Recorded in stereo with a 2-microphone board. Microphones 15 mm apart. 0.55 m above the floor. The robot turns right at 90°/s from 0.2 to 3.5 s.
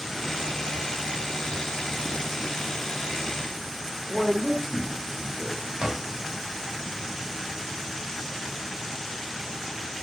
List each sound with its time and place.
4.1 s a man speaking: 35° right (ahead or behind), 1.6 m
5.8 s a drawer: 80° right, 2 m